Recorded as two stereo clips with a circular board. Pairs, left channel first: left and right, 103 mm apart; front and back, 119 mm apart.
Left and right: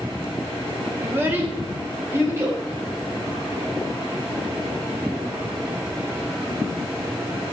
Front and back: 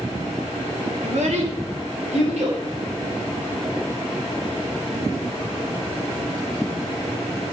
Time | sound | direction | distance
1.0 | a child speaking | 160° right | 2 m